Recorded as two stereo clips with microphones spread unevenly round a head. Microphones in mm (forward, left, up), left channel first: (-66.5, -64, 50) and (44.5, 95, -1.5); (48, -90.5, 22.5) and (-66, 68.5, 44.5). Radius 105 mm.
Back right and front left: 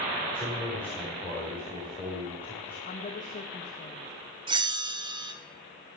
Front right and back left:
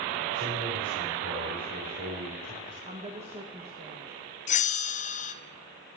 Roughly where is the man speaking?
Behind left.